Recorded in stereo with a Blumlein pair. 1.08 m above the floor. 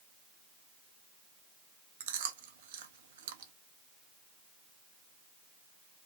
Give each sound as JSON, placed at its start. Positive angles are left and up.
{"t": 2.0, "sound": "chewing", "azimuth_deg": -60, "distance_m": 0.7}